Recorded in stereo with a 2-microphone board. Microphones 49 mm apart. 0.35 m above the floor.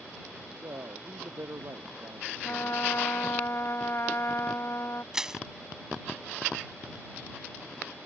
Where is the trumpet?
55° left (ahead or behind).